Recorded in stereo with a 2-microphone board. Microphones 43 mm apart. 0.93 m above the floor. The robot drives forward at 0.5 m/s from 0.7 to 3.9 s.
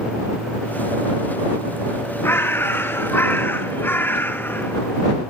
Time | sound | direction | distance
2.2 | a bird | 65° left (ahead or behind) | 1.6 m